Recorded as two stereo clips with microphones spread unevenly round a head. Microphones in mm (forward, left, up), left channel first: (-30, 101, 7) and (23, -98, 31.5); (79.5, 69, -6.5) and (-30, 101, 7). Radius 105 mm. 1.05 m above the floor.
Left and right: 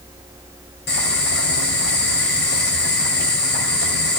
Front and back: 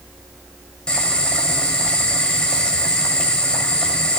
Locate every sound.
0.9 s boiling: 65° left, 7 m